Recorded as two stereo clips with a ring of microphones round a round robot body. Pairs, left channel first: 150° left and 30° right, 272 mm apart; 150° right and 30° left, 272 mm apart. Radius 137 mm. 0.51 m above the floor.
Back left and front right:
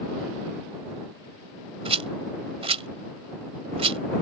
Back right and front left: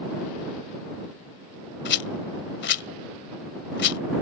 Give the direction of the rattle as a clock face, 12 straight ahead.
3 o'clock.